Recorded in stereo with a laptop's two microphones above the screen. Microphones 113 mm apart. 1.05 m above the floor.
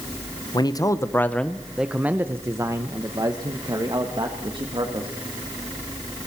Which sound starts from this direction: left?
A man speaking, at 0.5 s.